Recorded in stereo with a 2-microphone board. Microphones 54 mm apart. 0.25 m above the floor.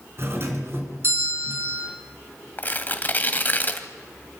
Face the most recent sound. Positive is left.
turn(degrees=35)  # may be behind; listen again after turning